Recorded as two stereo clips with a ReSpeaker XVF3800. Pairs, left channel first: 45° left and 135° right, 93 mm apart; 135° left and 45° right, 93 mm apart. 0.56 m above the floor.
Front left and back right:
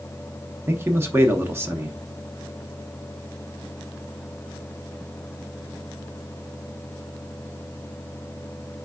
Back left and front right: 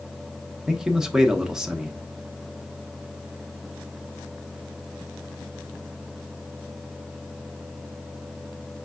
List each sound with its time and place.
0.7 s a man speaking: 120° right, 0.8 m